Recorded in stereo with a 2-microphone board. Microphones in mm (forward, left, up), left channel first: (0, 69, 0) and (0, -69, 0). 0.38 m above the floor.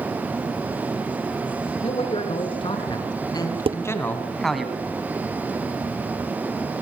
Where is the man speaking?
45° left (ahead or behind), 5.5 m; by 4.7 s 5° right (ahead or behind), 2.5 m.